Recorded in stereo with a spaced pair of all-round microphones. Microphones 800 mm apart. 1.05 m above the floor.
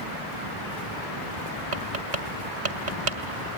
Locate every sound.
1.7 s tapping: 70° right (ahead or behind), 1.9 m